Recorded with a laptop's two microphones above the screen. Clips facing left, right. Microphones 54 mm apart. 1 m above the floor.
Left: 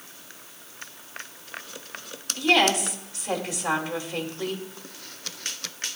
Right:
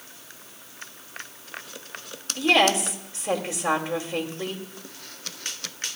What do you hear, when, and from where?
2.4 s a woman speaking: 30° right (ahead or behind), 2 m